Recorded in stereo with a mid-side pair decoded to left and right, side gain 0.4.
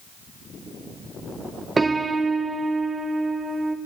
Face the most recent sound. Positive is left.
turn(degrees=-30)